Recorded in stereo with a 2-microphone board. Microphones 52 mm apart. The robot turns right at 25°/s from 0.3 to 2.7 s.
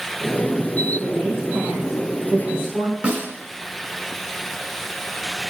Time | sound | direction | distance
1.0 | a woman speaking | 165° right | 4.5 m
3.0 | a snare drum | 30° right (ahead or behind) | 2 m